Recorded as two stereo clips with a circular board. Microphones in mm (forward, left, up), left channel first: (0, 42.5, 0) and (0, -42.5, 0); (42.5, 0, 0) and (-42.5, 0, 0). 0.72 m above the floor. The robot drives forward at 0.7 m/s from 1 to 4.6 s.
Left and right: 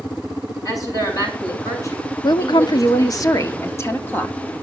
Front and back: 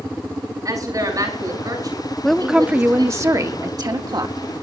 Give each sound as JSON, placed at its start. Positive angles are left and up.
{"t": 0.7, "sound": "a woman speaking", "azimuth_deg": 135, "distance_m": 6.5}
{"t": 2.2, "sound": "a woman speaking", "azimuth_deg": 80, "distance_m": 0.8}